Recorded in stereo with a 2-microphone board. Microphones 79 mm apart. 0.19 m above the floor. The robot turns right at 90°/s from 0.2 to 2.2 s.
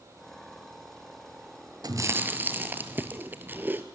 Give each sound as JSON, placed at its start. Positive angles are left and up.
{"t": 1.8, "sound": "chewing", "azimuth_deg": -60, "distance_m": 1.2}